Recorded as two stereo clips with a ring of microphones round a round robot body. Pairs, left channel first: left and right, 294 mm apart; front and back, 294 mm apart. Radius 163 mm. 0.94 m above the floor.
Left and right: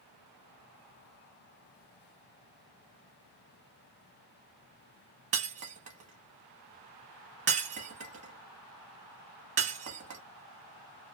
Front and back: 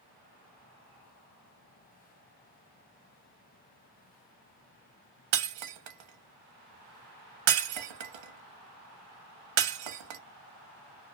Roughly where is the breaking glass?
Behind.